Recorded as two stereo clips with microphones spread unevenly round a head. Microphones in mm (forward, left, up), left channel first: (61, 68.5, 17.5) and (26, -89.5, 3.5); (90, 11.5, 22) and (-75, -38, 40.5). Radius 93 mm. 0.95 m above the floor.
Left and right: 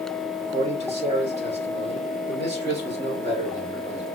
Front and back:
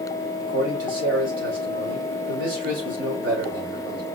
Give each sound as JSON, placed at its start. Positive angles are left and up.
{"t": 0.4, "sound": "a man speaking", "azimuth_deg": -160, "distance_m": 3.5}